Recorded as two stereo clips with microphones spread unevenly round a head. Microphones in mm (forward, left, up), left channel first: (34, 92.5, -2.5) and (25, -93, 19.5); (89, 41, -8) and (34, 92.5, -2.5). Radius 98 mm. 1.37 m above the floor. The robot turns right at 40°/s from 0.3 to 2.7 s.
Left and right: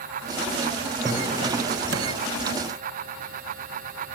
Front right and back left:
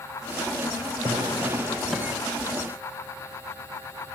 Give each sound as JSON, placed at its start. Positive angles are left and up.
{"t": 1.0, "sound": "a drawer", "azimuth_deg": -165, "distance_m": 3.0}